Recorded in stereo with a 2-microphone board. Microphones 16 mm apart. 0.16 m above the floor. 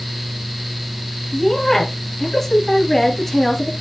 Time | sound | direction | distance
1.3 | a woman speaking | 10° left (ahead or behind) | 3 m